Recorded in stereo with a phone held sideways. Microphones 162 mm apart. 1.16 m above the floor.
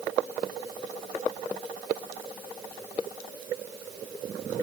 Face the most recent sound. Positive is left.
No sound to turn to.